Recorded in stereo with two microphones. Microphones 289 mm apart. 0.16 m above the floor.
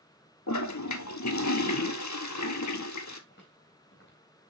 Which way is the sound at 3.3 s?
40° left (ahead or behind).